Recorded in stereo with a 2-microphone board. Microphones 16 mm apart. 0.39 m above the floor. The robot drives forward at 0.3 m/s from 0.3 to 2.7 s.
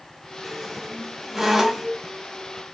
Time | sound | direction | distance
0.4 | a squeak | 20° right (ahead or behind) | 1.3 m